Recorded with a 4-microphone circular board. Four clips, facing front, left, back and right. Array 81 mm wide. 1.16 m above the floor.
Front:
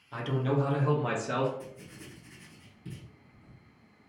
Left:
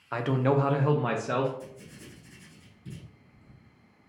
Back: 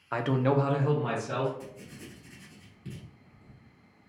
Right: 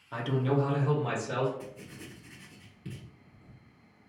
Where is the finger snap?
No finger snap in this recording.